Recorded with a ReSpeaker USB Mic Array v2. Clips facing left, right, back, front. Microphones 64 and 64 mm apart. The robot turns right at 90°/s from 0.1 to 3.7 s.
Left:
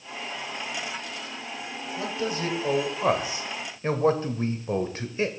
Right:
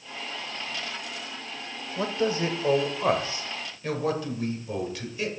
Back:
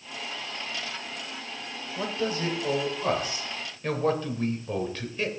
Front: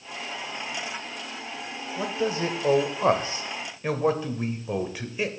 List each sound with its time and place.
2.0 s a man speaking: 90° right, 1.2 m; by 5.3 s 70° left, 1.2 m